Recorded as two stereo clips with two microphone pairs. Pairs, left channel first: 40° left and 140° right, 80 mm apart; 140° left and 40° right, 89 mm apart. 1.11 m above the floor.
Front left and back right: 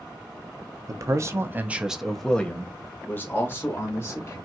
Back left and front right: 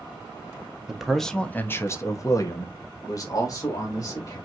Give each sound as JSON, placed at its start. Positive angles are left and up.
{"t": 0.9, "sound": "a man speaking", "azimuth_deg": -120, "distance_m": 0.8}